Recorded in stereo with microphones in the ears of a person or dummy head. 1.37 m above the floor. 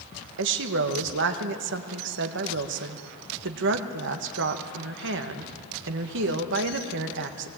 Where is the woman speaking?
60° right (ahead or behind), 1.4 m.